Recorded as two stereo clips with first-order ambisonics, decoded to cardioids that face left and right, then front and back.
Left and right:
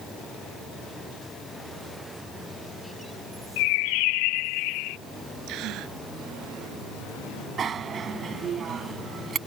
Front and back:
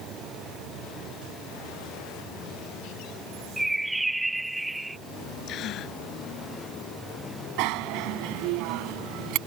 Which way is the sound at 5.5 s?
50° right.